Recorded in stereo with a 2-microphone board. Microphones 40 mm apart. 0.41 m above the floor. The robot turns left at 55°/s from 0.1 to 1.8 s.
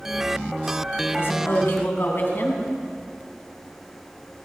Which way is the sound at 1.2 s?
95° left.